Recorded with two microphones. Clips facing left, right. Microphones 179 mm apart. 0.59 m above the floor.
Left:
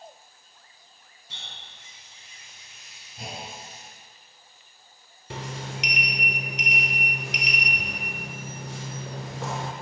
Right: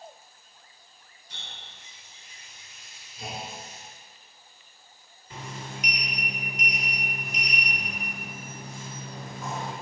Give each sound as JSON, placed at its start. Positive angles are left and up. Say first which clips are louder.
{"t": 1.3, "sound": "a running tap", "louder": "even", "side_deg": 75, "distance_m": 3.5}
{"t": 3.2, "sound": "a clunk", "louder": "right 1 dB", "side_deg": 65, "distance_m": 2.5}
{"t": 5.3, "sound": "a sliding door", "louder": "left 4 dB", "side_deg": 80, "distance_m": 0.8}